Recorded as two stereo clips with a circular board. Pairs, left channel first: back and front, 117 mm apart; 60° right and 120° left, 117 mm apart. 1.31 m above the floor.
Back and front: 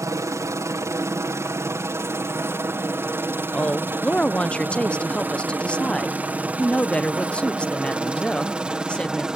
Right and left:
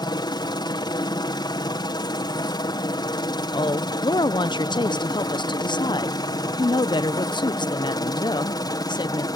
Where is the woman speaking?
100° right.